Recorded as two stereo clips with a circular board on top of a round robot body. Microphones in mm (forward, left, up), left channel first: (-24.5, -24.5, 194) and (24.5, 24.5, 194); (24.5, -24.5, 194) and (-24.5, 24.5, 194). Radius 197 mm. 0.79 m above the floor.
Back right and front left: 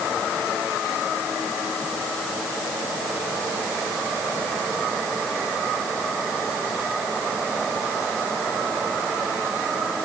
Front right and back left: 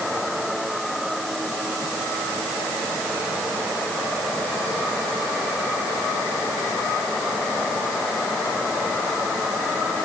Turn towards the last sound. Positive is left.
No sound to turn to.